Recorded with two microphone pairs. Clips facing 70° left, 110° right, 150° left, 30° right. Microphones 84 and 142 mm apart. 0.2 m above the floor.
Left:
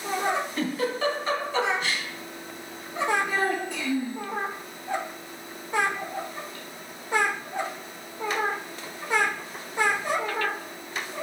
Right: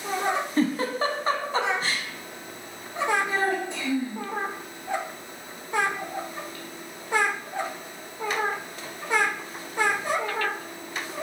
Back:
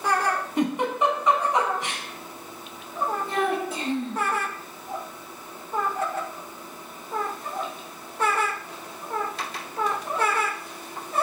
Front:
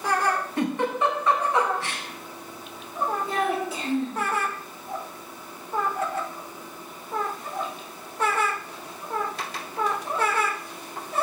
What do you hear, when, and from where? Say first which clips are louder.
0.6 s a giggle: right 3 dB, back 3 dB; 150° right, 0.6 m
3.3 s a child speaking: right 1 dB, even; straight behind, 1.9 m